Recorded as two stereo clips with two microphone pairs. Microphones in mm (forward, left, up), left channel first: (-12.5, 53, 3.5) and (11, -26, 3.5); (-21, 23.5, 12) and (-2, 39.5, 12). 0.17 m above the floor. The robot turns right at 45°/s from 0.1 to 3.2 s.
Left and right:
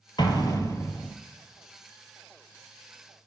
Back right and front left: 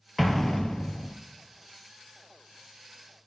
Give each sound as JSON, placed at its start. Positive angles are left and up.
{"t": 0.2, "sound": "an explosion", "azimuth_deg": 130, "distance_m": 0.6}